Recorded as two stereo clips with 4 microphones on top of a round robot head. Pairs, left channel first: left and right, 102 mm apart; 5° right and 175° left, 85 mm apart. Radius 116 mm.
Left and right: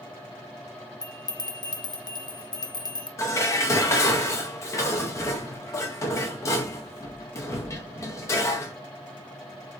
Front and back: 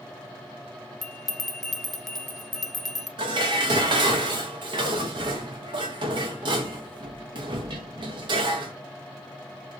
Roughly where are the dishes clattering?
Behind left.